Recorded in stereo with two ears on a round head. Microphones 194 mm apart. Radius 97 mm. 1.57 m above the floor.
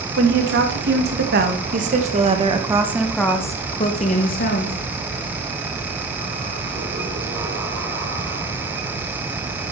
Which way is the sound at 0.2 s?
60° right (ahead or behind).